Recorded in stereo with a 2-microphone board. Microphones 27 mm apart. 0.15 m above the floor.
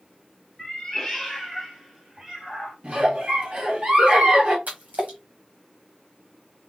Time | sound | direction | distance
0.6 | a cat meowing | 20° left (ahead or behind) | 1.2 m
2.8 | a giggle | 40° right (ahead or behind) | 1.7 m
4.7 | a splash | 70° right (ahead or behind) | 1.8 m